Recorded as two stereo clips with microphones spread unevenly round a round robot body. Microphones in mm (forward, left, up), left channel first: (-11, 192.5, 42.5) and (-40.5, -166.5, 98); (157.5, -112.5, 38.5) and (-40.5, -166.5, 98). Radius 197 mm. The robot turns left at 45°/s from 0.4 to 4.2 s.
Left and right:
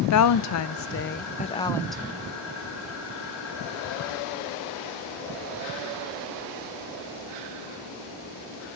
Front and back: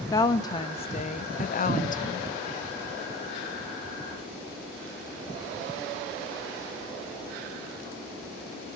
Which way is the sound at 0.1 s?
70° left.